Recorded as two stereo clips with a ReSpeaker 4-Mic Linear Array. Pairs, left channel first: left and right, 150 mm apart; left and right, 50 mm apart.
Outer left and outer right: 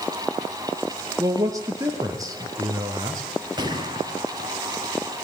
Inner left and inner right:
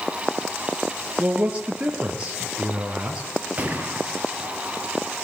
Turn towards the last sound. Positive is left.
turn(degrees=-30)  # may be behind; listen again after turning